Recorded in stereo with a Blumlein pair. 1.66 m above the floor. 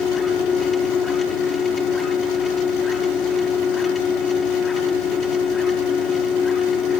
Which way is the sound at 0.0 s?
15° left.